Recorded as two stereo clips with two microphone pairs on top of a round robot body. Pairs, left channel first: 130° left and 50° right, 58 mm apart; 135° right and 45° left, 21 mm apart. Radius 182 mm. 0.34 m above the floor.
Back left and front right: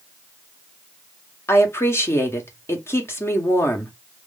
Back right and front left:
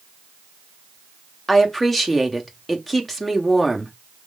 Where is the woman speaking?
155° left, 1.7 m.